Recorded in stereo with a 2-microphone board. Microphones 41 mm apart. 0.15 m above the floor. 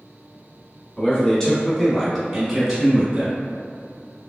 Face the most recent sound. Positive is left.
turn(degrees=-20)  # may be behind; listen again after turning